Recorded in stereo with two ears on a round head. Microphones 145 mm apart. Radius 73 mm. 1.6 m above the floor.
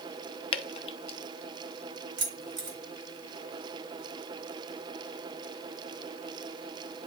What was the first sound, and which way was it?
Dripping, 35° left (ahead or behind).